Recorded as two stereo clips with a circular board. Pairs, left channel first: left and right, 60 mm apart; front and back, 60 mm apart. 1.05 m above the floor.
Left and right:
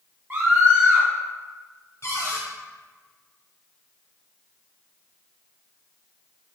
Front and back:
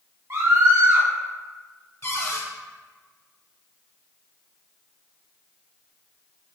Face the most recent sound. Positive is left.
turn(degrees=45)